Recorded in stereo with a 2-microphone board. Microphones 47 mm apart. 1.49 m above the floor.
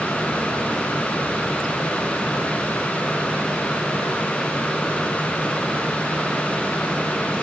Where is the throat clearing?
I don't hear throat clearing.